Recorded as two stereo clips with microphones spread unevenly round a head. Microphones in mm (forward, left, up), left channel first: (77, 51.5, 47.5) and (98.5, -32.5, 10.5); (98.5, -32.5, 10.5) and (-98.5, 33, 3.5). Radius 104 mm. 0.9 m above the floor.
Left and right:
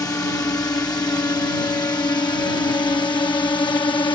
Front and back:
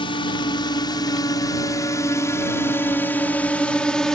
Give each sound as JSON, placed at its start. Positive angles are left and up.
{"t": 0.0, "sound": "a drone", "azimuth_deg": 45}